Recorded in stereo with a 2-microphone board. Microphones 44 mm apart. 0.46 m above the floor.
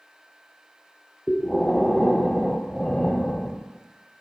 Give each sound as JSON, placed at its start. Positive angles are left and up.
{"t": 1.3, "sound": "breathing", "side_deg": 10, "distance_m": 0.7}